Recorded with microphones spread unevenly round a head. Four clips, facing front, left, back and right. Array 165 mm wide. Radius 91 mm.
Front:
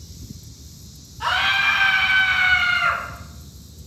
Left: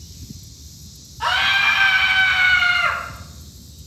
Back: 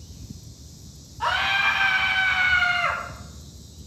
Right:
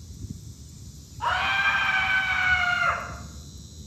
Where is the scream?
90° left, 2 m; by 3.0 s 115° left, 3.5 m.